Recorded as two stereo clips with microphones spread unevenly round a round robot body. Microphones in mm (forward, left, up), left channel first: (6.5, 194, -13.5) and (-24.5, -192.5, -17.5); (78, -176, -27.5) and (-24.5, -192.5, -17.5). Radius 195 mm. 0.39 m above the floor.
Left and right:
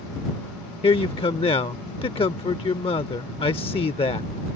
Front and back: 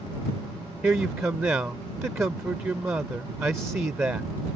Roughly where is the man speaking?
Behind left.